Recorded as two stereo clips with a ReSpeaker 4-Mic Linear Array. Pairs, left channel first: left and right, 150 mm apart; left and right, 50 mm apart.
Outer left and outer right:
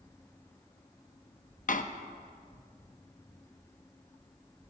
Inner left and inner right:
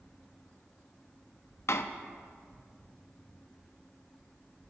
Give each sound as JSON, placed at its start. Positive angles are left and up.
{"t": 1.7, "sound": "a door slam", "side_deg": 60, "distance_m": 0.6}